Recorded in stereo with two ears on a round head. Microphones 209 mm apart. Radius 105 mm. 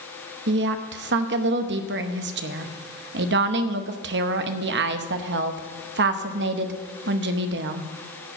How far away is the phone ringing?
I don't hear a phone ringing.